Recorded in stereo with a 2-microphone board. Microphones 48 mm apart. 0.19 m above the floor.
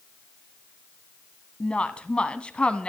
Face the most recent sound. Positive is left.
turn(degrees=25)  # may be behind; listen again after turning